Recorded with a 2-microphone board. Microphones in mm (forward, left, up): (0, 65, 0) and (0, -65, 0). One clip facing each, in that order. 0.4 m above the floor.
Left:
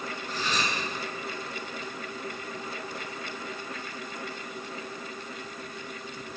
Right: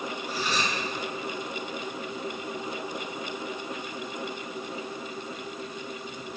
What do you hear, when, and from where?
0.3 s cutlery clinking: 10° right (ahead or behind), 3.5 m